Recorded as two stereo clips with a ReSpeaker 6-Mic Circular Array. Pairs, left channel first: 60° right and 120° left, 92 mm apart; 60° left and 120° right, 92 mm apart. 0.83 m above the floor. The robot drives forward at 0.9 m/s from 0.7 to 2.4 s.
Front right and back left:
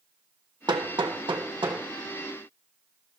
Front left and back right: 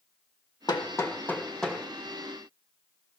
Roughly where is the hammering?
Left.